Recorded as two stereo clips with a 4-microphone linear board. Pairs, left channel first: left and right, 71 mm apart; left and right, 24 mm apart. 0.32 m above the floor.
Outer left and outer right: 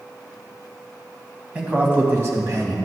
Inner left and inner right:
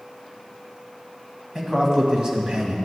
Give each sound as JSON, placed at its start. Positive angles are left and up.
{"t": 1.6, "sound": "a man speaking", "side_deg": -20, "distance_m": 2.0}